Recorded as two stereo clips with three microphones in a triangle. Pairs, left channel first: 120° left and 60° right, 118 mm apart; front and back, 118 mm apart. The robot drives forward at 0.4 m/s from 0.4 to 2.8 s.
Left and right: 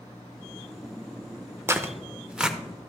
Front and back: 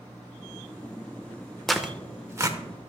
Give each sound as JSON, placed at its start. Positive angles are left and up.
{"t": 1.7, "sound": "tearing paper", "azimuth_deg": -85, "distance_m": 0.6}